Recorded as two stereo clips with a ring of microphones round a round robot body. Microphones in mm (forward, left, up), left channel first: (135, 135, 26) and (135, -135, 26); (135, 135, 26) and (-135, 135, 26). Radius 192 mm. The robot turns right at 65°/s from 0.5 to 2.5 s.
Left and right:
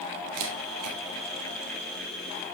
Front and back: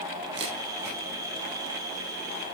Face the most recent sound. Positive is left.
turn(degrees=10)